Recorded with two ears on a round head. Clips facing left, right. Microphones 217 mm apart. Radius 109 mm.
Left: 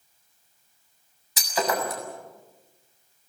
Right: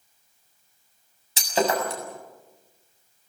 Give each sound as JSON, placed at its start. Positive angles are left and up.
{"t": 1.4, "sound": "breaking glass", "side_deg": -25, "distance_m": 6.5}